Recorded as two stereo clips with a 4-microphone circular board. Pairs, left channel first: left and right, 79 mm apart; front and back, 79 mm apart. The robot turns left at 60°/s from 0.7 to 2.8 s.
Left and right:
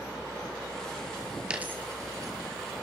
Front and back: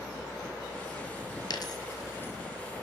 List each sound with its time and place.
1.5 s a dropped coin: 15° right, 1.1 m; by 2.3 s 65° right, 1.1 m